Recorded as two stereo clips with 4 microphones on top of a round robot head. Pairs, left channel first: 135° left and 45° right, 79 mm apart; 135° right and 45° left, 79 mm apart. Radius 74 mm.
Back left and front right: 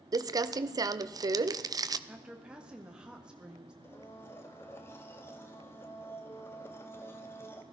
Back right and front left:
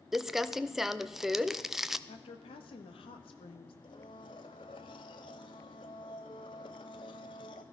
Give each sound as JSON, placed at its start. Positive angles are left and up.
{"t": 0.1, "sound": "crumpling", "azimuth_deg": -40, "distance_m": 0.7}
{"t": 2.1, "sound": "a woman speaking", "azimuth_deg": -125, "distance_m": 1.6}
{"t": 3.8, "sound": "a blender", "azimuth_deg": -165, "distance_m": 0.6}